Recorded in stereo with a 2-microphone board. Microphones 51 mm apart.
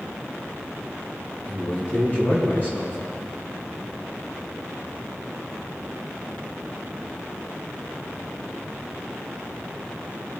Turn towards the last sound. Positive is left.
turn(degrees=35)  # may be behind; listen again after turning